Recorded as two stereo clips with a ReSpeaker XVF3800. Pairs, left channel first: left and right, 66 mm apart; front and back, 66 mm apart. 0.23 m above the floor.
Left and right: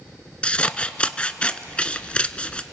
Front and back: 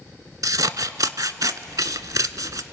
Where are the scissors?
160° left, 0.6 m.